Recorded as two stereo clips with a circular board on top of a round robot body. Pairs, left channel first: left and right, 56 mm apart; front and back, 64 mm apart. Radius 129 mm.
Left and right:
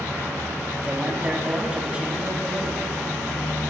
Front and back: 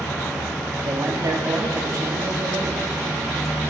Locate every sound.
0.8 s a man speaking: 155° right, 2.5 m